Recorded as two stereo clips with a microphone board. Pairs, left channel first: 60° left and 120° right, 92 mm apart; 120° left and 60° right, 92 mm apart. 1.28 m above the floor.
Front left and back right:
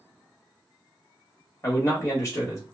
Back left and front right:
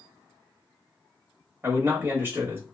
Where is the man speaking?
10° left, 0.8 m.